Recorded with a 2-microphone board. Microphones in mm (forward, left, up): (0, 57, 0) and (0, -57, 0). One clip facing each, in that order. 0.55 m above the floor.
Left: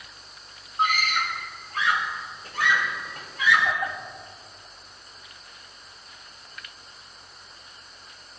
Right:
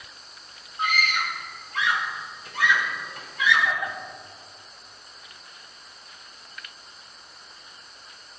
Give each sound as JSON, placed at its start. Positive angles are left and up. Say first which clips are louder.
{"t": 0.8, "sound": "a scream", "louder": "left 2 dB", "side_deg": 45, "distance_m": 3.0}